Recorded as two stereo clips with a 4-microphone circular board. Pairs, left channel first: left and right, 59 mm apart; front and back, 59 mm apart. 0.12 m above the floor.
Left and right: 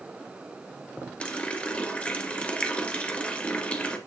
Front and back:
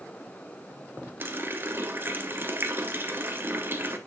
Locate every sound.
1.2 s a running tap: 150° left, 1.2 m